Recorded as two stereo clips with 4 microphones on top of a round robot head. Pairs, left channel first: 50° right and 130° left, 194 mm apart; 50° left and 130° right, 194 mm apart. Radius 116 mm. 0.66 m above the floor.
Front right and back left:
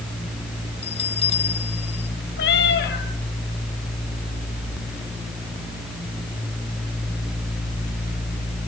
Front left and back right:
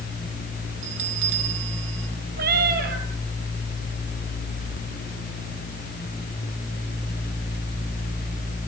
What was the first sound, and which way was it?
A bell, 110° right.